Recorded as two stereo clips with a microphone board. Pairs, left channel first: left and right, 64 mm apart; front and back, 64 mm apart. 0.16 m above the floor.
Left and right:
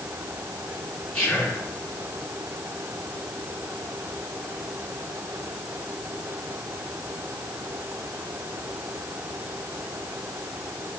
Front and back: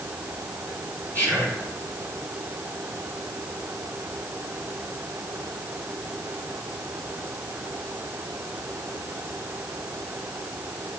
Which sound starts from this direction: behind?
Whispering, at 1.1 s.